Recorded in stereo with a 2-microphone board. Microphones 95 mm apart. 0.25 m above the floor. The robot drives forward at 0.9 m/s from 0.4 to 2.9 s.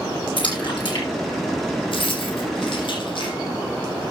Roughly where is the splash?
Left.